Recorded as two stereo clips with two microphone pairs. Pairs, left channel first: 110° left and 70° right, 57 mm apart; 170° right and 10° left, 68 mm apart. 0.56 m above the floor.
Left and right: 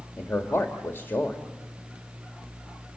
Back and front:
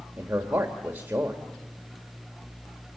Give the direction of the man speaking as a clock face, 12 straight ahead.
10 o'clock.